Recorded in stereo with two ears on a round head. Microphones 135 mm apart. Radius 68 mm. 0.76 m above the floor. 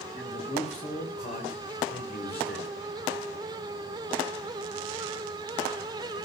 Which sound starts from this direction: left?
A man speaking, at 0.1 s.